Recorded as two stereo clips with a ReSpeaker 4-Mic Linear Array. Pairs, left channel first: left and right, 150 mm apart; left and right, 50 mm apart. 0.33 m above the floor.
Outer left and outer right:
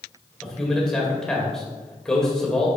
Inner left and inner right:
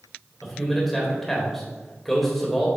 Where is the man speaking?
5° left (ahead or behind), 1.4 m.